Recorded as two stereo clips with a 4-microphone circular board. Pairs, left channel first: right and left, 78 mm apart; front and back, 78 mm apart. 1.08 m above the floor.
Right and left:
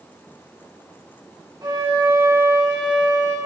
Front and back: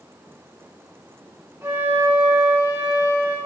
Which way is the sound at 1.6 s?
120° left.